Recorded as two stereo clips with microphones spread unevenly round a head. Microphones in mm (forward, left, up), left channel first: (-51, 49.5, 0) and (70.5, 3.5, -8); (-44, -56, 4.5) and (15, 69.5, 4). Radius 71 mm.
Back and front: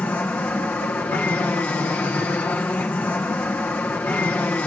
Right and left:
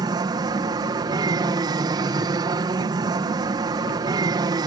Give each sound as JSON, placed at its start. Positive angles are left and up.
{"t": 0.0, "sound": "an aircraft", "azimuth_deg": 90}